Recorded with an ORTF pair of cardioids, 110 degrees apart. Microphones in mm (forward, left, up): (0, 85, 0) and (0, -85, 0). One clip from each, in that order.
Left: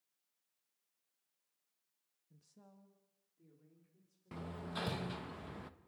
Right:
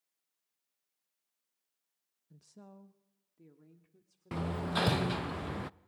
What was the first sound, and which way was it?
A woman speaking, 35° right.